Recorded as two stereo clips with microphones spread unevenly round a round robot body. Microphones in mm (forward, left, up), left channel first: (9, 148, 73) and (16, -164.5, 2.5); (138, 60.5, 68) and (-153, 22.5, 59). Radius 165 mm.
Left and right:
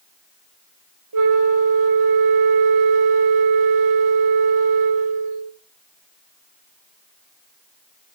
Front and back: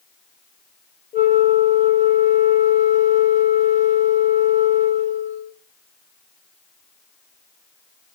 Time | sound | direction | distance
1.1 | a flute | 60° right | 1.3 m